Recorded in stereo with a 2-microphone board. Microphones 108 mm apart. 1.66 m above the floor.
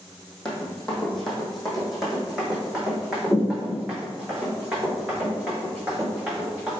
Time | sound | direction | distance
0.5 | running footsteps | 5° left (ahead or behind) | 2.5 m